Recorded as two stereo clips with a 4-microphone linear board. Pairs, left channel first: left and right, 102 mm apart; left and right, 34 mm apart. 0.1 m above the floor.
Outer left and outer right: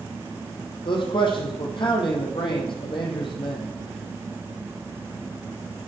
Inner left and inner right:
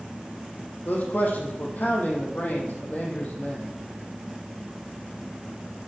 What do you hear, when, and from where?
0.8 s a man speaking: 55° left (ahead or behind), 3 m